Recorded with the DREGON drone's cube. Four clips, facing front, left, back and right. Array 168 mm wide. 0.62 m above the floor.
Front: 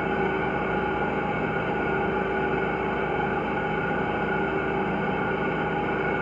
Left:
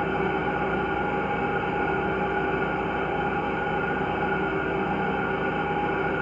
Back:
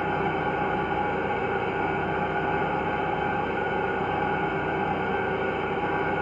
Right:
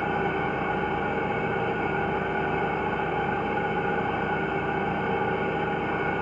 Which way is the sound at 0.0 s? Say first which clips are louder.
Left 1 dB, front 1 dB; 60° left.